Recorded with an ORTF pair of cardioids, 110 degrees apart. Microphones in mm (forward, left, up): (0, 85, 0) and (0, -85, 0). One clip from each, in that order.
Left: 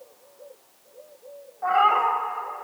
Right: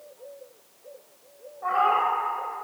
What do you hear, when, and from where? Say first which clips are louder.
1.6 s a cat meowing: left 3 dB; 20° left, 1.1 m